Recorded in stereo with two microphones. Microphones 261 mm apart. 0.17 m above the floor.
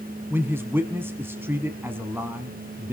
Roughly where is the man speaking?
Centre.